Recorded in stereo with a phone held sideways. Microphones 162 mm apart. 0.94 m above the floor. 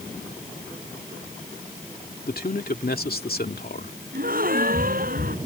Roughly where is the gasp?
Right.